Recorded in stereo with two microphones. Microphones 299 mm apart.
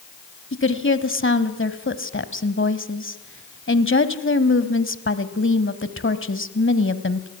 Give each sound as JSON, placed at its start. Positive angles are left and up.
{"t": 0.5, "sound": "a woman speaking", "side_deg": 40, "distance_m": 1.4}